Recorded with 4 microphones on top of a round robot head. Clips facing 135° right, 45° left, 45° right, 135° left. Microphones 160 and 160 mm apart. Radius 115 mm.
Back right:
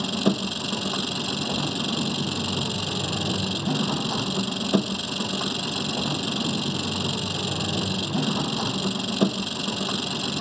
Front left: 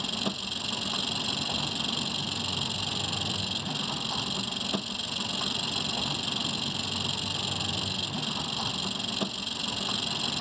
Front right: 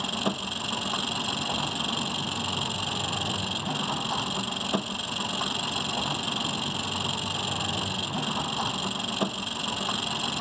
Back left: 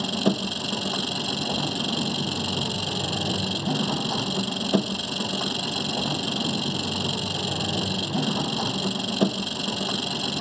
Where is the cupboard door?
No cupboard door in this recording.